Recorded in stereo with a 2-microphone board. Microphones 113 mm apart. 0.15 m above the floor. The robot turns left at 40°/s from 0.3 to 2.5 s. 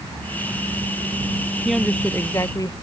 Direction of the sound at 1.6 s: Straight behind.